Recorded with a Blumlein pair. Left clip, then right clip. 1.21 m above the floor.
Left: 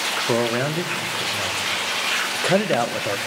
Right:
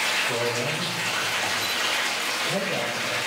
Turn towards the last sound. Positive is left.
turn(degrees=35)